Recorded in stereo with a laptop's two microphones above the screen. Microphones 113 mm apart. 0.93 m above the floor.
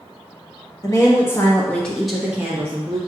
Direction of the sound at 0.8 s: 30° left (ahead or behind).